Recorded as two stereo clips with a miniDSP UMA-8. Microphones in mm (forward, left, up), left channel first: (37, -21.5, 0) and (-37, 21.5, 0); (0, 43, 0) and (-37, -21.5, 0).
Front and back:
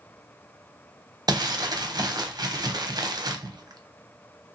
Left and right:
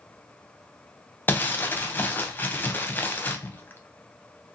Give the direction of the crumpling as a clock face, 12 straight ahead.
8 o'clock.